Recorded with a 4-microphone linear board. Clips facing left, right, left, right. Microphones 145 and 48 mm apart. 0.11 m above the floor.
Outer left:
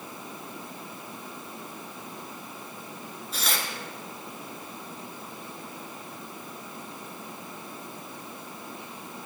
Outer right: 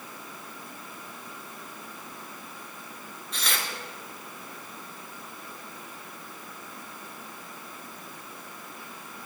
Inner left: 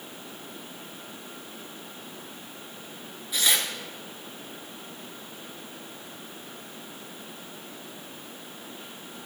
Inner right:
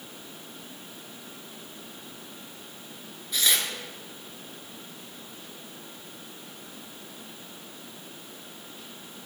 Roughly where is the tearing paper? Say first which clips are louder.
Outer left 1 dB, inner left 1 dB; centre.